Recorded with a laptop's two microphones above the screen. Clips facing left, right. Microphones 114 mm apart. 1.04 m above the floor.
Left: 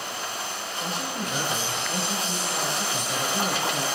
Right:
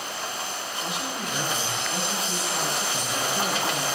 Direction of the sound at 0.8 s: 40° left (ahead or behind).